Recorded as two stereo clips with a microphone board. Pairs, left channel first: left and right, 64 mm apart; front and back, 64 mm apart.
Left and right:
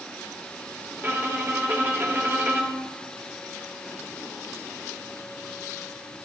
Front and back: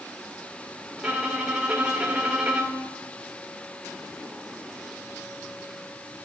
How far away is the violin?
About 1.3 m.